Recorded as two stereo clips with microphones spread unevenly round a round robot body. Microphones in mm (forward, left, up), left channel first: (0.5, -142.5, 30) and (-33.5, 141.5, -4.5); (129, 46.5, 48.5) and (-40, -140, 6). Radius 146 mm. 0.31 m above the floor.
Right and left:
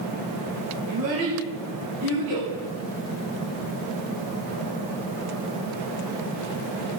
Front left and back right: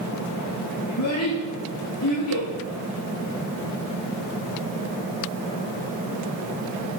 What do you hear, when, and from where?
0.9 s a child speaking: 80° left, 7 m; by 2.5 s 75° left, 6 m